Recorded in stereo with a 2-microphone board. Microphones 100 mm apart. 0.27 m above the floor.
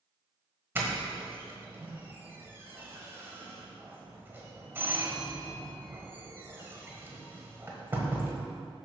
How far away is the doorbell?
About 1.4 m.